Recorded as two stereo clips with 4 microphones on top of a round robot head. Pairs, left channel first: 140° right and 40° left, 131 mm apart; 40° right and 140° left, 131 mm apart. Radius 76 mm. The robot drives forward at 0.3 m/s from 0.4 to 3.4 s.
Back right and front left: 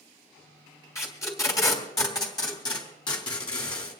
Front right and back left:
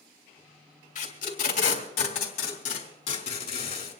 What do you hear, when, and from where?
0.9 s tape being pulled: 70° right, 3 m; by 4.0 s 85° right, 2.5 m